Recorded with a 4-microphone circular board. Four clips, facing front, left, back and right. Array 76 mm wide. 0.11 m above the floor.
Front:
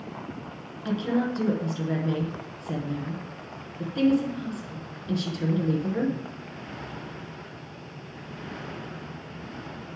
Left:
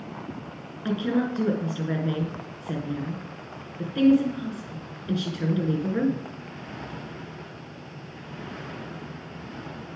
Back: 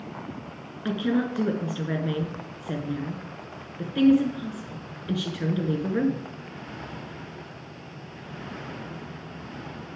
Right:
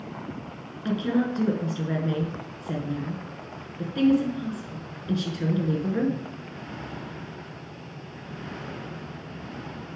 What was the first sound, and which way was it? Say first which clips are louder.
A woman speaking: even, back 1 dB; 160° left.